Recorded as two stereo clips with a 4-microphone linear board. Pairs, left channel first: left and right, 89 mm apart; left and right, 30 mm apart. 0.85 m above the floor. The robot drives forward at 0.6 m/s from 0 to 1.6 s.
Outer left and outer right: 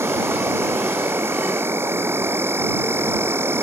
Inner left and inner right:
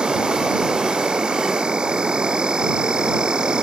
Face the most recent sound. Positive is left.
turn(degrees=-25)  # may be behind; listen again after turning